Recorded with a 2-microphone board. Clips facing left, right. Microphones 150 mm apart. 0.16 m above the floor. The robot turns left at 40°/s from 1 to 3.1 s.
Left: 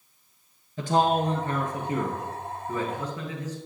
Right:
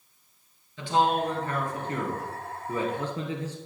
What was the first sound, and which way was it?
A man speaking, 50° left.